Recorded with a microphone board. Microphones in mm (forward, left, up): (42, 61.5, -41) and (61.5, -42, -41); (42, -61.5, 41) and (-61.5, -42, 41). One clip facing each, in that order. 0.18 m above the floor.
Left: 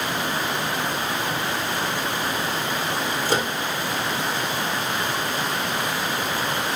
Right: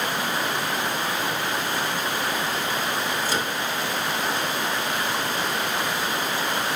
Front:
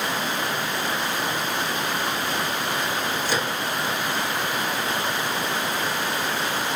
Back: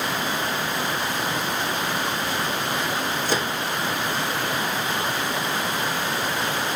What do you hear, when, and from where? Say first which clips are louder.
3.2 s a microwave: left 3 dB, back 2 dB; 130° left, 2.5 m